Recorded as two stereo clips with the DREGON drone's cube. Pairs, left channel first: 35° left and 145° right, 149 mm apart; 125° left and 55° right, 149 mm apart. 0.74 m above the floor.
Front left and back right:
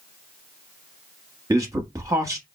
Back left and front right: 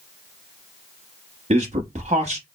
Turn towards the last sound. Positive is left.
turn(degrees=-80)